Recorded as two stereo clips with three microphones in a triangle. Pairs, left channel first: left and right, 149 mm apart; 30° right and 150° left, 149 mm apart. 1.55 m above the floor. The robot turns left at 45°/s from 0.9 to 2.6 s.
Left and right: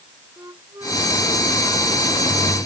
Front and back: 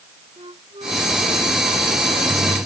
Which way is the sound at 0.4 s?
160° right.